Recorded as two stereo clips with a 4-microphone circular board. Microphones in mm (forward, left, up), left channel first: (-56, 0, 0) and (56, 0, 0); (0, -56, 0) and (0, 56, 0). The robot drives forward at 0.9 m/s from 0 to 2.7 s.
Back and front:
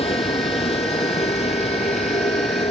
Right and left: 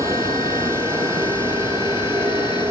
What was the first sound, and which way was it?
A vehicle, 150° left.